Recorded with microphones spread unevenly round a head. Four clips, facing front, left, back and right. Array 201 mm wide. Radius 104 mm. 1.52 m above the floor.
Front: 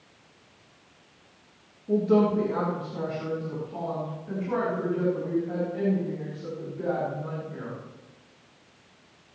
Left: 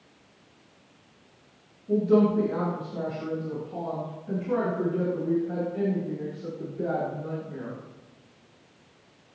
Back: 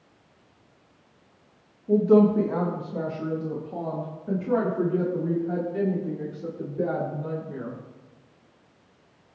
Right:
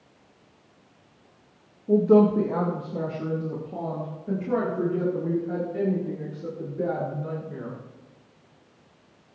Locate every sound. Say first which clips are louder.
1.9 s a woman speaking: right 4 dB, back 4 dB; 90° right, 1.9 m; by 7.7 s 140° right, 6 m